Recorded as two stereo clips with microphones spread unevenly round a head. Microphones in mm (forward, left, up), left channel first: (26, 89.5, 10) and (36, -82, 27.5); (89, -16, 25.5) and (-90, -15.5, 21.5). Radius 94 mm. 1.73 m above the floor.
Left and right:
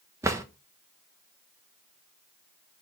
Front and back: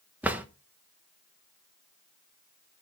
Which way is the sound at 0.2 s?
110° right.